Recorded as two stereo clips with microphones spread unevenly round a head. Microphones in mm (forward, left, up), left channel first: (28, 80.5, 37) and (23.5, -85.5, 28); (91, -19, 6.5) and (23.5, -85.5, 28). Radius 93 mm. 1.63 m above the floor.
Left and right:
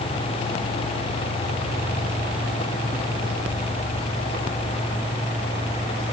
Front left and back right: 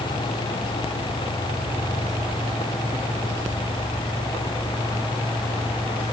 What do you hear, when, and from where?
Only background noise.